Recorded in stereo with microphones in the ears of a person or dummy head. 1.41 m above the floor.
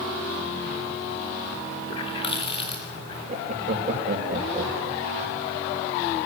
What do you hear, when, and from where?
1.9 s a running tap: 30° left (ahead or behind), 2.5 m
3.3 s laughter: 35° right (ahead or behind), 4 m